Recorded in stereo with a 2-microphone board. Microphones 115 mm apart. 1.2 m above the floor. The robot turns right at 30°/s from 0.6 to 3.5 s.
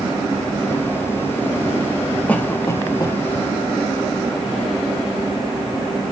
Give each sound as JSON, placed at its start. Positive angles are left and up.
{"t": 2.3, "sound": "a cough", "side_deg": 10, "distance_m": 1.6}